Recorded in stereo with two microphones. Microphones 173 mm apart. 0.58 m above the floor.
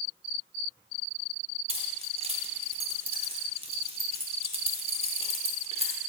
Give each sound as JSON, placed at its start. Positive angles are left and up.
{"t": 1.7, "sound": "keys jangling", "side_deg": -35, "distance_m": 0.8}